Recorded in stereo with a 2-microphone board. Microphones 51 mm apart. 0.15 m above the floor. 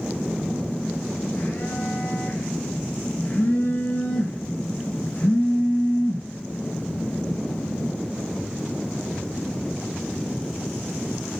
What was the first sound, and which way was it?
A phone buzzing, 25° left (ahead or behind).